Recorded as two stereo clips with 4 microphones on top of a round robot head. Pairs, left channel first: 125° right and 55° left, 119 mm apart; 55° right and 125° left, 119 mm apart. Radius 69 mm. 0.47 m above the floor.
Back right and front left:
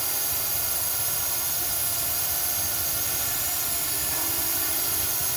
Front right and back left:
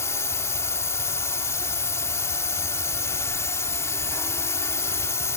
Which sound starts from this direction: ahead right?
A drone, at 0.0 s.